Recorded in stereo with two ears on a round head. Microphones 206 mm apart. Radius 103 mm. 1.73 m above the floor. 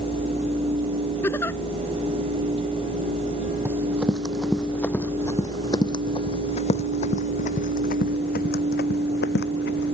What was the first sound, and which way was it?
A giggle, 10° left (ahead or behind).